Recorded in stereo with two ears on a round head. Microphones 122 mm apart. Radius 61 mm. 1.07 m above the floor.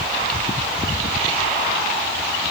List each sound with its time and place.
Only background noise.